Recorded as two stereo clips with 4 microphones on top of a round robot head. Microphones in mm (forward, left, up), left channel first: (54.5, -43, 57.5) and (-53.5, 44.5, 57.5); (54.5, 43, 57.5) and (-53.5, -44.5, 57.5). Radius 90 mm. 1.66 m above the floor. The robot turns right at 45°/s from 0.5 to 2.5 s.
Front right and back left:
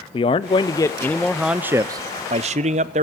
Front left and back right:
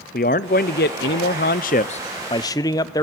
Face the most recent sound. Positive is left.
turn(degrees=105)